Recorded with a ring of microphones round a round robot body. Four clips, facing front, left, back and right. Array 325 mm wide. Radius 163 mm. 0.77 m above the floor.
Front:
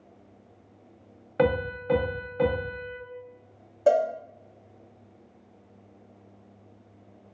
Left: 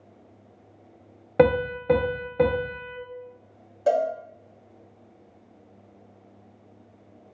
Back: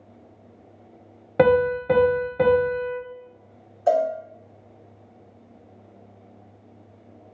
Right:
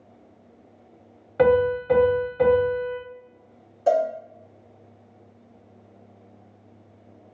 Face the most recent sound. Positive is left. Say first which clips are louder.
# right 2 dB, back 1 dB
turn(degrees=10)